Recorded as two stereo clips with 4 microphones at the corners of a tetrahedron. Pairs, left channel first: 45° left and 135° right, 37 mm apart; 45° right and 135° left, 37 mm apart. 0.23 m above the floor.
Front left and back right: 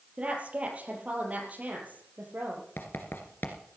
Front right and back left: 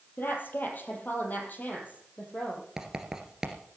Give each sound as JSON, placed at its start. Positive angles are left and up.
{"t": 0.2, "sound": "a woman speaking", "azimuth_deg": -80, "distance_m": 5.0}
{"t": 2.8, "sound": "writing", "azimuth_deg": 60, "distance_m": 2.0}